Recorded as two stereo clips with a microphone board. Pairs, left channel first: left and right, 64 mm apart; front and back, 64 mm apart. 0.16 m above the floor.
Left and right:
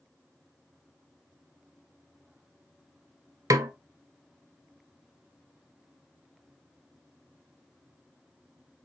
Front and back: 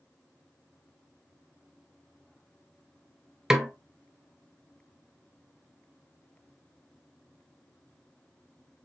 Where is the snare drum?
100° right, 0.5 m.